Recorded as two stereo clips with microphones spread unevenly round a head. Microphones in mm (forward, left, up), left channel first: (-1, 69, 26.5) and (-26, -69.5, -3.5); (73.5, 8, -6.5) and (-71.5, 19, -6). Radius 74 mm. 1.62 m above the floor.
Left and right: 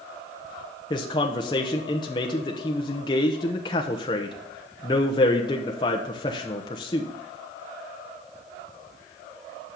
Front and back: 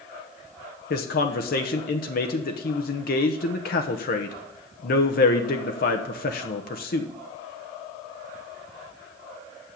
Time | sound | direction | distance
0.9 | a man speaking | 20° left | 1.0 m